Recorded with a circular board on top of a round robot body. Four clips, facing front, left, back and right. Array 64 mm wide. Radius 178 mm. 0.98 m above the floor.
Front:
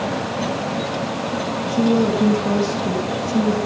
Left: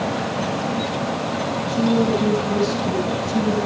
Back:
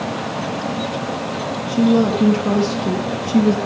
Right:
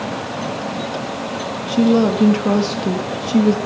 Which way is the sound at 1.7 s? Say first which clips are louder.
Right 5 dB, back 2 dB; 100° right.